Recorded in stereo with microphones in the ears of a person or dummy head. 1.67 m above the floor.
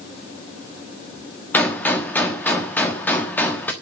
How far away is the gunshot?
About 1.3 m.